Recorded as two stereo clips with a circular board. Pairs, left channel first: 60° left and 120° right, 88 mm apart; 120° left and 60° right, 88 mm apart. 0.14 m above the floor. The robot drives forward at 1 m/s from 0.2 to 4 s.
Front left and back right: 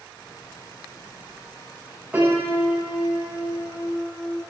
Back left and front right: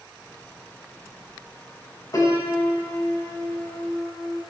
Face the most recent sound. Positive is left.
turn(degrees=170)